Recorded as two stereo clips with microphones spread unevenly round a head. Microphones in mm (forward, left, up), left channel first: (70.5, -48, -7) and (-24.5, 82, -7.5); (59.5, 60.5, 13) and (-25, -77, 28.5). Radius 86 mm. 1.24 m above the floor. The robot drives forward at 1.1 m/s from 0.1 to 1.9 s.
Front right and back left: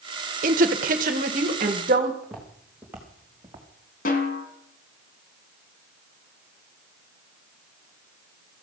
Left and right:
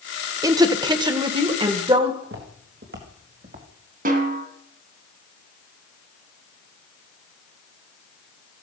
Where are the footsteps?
145° right, 4.5 m; by 3.7 s 165° right, 3.5 m.